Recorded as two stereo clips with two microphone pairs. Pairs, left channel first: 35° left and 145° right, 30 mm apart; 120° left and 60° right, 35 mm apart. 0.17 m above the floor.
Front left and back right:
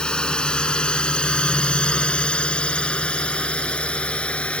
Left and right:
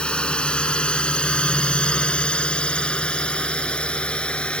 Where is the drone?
80° left; by 4.6 s 70° left.